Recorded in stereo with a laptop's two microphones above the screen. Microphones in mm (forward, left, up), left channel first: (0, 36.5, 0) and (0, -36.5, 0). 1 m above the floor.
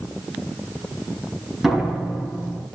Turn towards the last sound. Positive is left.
turn(degrees=-5)  # may be behind; listen again after turning